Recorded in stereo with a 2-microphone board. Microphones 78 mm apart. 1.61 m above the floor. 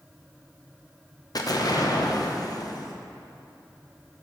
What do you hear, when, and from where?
1.4 s an explosion: 55° left (ahead or behind), 0.5 m